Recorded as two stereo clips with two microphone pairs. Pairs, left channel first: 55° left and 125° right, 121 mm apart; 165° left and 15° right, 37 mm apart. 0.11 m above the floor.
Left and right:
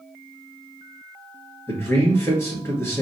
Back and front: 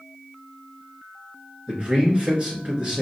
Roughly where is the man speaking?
Ahead.